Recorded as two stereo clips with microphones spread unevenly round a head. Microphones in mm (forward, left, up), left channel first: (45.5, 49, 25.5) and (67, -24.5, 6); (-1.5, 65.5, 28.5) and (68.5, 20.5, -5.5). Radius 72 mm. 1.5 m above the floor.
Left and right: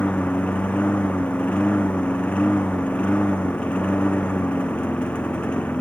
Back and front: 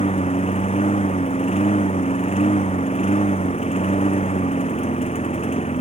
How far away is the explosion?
I don't hear an explosion.